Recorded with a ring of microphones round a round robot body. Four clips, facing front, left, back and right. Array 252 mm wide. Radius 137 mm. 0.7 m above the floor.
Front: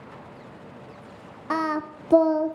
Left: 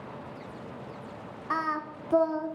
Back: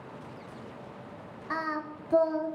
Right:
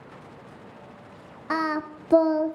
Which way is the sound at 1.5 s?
35° right.